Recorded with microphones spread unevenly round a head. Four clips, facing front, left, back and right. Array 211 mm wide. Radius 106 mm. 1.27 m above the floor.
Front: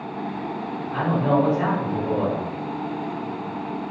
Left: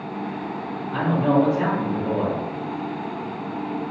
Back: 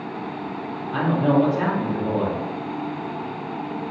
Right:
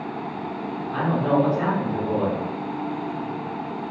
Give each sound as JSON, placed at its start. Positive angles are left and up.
{"t": 0.9, "sound": "a man speaking", "azimuth_deg": 160, "distance_m": 1.0}